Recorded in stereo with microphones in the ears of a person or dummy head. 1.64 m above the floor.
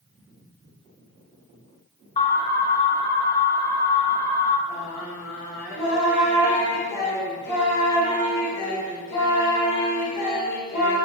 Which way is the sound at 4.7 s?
65° left (ahead or behind).